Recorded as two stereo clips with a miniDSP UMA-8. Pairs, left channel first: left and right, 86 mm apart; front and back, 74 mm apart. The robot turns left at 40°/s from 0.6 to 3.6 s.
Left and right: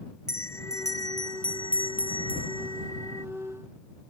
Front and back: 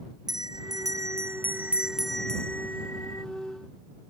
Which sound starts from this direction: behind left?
A bell, at 0.3 s.